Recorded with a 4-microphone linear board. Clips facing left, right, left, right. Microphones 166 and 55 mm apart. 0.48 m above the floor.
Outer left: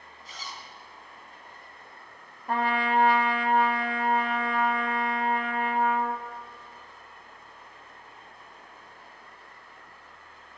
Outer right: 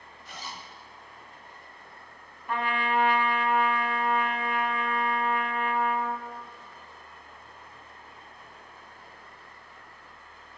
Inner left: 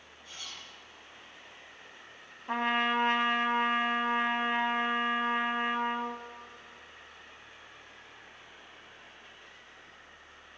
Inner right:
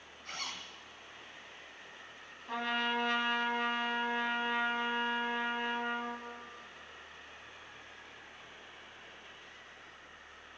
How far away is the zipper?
About 1.4 m.